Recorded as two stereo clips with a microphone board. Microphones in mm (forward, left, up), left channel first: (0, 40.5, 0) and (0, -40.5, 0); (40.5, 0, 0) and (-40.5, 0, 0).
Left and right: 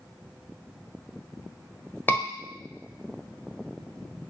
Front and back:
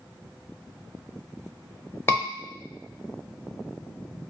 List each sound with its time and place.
2.1 s a scream: 40° left, 1.0 m